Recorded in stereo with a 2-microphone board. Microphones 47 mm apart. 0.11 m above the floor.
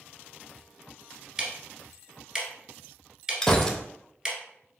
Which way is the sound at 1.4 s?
15° right (ahead or behind).